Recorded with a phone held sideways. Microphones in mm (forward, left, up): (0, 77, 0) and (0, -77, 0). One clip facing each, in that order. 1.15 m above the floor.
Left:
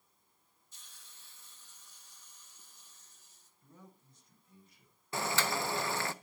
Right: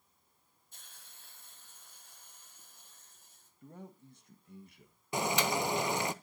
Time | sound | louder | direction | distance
0.7 | a hiss | right 3 dB | 55° right (ahead or behind) | 2 m
3.6 | a man speaking | right 8 dB | 65° right (ahead or behind) | 1.5 m
5.1 | boiling | right 3 dB | 15° right (ahead or behind) | 0.6 m